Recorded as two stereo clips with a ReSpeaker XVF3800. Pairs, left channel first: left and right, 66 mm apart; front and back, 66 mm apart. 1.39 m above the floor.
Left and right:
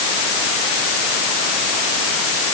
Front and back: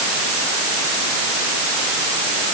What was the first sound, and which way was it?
Only background noise.